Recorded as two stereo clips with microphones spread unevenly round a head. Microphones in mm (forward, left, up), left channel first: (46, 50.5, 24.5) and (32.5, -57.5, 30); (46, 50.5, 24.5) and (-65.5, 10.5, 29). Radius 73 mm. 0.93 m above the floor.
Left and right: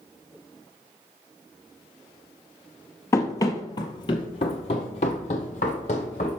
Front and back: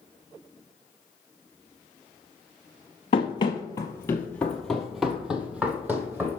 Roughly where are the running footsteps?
Ahead left.